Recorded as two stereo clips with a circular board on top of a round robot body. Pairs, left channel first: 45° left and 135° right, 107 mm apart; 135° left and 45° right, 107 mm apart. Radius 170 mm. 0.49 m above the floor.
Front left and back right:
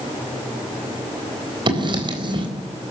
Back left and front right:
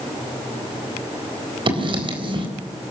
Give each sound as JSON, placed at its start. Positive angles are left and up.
{"t": 1.7, "sound": "writing", "azimuth_deg": -90, "distance_m": 4.0}